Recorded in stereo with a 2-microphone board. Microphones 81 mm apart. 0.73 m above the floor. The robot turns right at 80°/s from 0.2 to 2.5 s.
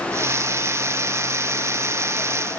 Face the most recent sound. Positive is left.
No sound to turn to.